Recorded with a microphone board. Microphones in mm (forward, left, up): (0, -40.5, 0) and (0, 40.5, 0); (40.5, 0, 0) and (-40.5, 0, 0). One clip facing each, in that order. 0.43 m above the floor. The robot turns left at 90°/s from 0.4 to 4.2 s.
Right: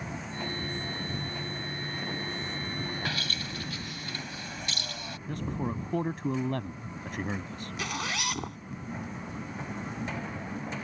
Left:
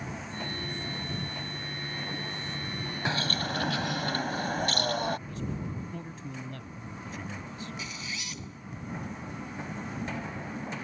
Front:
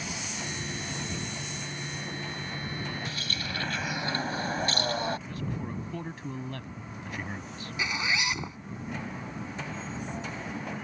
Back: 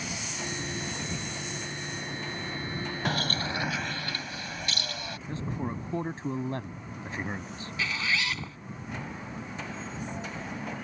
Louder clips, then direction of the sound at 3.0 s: Left 4 dB, back 6 dB; 155° left.